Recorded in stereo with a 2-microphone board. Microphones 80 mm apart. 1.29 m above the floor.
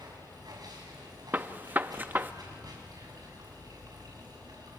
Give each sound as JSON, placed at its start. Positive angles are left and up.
{"t": 0.0, "sound": "running water", "side_deg": -60, "distance_m": 6.0}
{"t": 1.3, "sound": "a gunshot", "side_deg": -25, "distance_m": 0.7}